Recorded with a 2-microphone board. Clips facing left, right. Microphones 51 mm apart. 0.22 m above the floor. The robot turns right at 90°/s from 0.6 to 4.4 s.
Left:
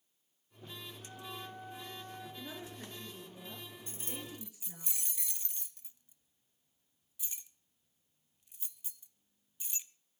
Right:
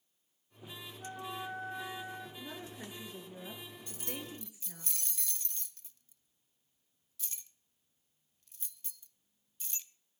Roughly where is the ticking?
No ticking in this recording.